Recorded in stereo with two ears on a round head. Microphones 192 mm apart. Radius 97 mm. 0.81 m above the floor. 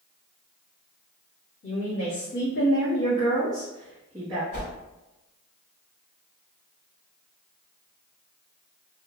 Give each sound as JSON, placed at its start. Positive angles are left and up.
{"t": 1.6, "sound": "a woman speaking", "side_deg": 65, "distance_m": 1.3}
{"t": 4.5, "sound": "a whoosh", "side_deg": 65, "distance_m": 1.6}